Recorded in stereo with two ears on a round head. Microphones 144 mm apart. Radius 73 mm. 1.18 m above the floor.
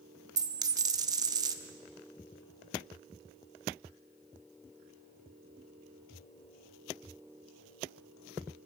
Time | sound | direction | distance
0.4 | a dropped coin | 25° right (ahead or behind) | 0.6 m